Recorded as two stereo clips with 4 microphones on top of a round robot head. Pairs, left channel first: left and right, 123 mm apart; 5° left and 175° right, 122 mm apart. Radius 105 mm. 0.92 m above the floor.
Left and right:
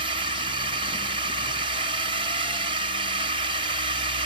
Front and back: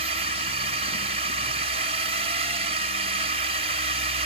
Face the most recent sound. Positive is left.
turn(degrees=-140)